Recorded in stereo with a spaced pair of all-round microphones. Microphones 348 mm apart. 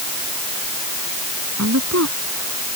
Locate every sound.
1.6 s a woman speaking: 45° right (ahead or behind)